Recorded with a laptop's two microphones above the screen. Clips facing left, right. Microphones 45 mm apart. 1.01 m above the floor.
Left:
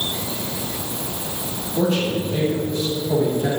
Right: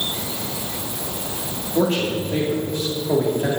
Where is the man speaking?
55° right (ahead or behind), 2 m.